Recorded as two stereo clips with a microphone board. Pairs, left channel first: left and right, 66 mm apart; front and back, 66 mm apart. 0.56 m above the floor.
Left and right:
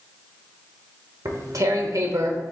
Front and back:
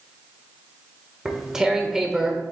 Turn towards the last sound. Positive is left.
turn(degrees=-100)